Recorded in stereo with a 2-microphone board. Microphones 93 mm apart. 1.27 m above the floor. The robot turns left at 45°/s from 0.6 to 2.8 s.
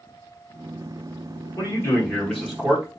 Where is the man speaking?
40° left, 1.2 m; by 2.8 s 15° right, 1.2 m.